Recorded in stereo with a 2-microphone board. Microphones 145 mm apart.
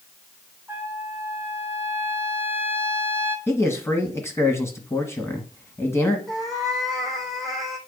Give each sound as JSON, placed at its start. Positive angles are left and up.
{"t": 0.7, "sound": "a trumpet", "side_deg": -15, "distance_m": 1.6}
{"t": 3.5, "sound": "a man speaking", "side_deg": 20, "distance_m": 1.4}
{"t": 6.3, "sound": "a cat meowing", "side_deg": 0, "distance_m": 1.9}